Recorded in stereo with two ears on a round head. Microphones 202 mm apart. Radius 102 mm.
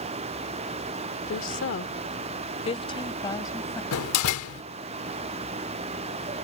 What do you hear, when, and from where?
1.3 s a woman speaking: 65° left (ahead or behind); by 3.8 s 15° left (ahead or behind)
3.9 s a door slam: 70° left (ahead or behind)